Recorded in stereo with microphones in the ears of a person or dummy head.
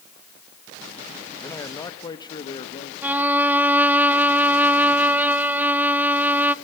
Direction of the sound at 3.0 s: 10° right (ahead or behind).